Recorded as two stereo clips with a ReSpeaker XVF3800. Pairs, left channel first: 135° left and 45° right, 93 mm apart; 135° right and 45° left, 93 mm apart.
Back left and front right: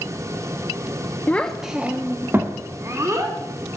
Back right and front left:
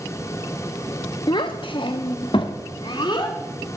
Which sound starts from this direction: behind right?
A child speaking, at 1.3 s.